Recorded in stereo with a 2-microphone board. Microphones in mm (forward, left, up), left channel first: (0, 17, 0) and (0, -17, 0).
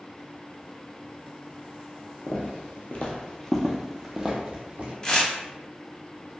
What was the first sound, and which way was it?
Footsteps, 60° left (ahead or behind).